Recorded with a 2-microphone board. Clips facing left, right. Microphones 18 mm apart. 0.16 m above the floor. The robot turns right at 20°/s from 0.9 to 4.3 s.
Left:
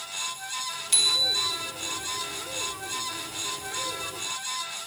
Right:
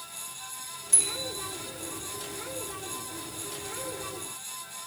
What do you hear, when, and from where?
0.9 s a bicycle bell: 70° left (ahead or behind), 3.5 m; by 1.6 s 80° left, 3.5 m